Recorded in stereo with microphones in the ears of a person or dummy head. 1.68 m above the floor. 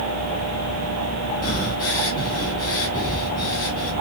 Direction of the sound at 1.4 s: 30° left (ahead or behind).